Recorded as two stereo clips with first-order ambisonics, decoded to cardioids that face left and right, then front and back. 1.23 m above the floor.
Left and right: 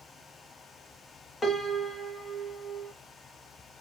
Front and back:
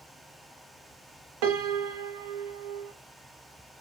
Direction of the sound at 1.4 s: 170° left.